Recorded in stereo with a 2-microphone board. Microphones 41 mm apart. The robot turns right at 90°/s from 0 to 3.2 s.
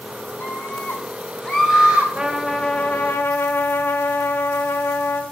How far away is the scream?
About 4.5 m.